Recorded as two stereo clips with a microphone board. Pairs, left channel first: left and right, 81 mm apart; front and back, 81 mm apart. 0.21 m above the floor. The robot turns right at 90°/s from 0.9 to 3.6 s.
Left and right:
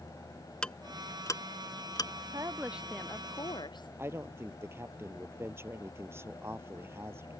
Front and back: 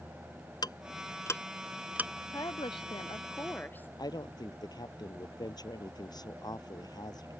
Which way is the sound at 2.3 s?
45° right.